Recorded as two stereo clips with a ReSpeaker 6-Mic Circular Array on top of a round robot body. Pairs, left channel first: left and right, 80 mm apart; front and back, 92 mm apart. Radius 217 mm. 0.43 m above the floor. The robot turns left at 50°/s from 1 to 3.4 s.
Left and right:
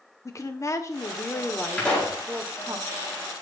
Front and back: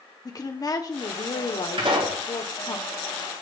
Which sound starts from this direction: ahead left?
A woman speaking, at 0.2 s.